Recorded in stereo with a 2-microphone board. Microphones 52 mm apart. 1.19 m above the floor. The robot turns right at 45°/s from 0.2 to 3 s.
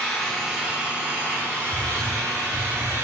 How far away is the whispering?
About 2.5 m.